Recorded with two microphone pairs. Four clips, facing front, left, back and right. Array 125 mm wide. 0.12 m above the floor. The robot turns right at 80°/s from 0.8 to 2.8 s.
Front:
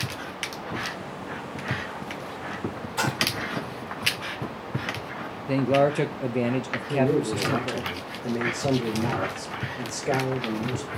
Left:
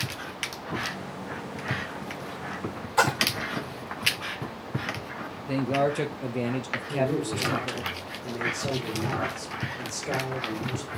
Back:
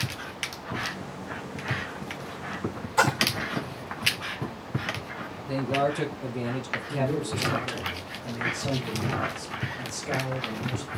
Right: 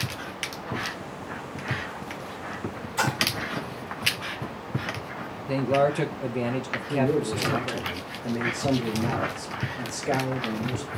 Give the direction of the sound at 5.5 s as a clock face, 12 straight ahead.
12 o'clock.